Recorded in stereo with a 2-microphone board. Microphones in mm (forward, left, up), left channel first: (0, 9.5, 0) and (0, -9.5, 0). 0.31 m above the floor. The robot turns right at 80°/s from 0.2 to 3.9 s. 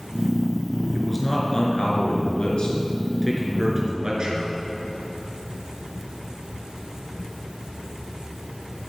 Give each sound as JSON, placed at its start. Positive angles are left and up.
{"t": 0.9, "sound": "a man speaking", "azimuth_deg": -5, "distance_m": 4.0}